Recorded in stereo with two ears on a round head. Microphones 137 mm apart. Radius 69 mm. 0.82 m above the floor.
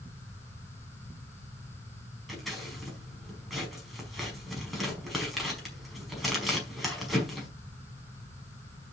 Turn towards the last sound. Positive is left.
turn(degrees=0)  # may be behind; listen again after turning